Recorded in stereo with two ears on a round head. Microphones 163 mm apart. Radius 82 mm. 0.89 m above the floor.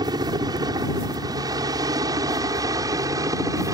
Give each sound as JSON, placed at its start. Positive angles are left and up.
{"t": 0.0, "sound": "a helicopter", "side_deg": -25}